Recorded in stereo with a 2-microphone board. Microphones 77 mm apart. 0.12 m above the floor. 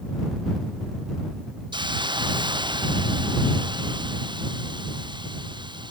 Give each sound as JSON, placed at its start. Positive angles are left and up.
{"t": 1.7, "sound": "a hiss", "side_deg": -85}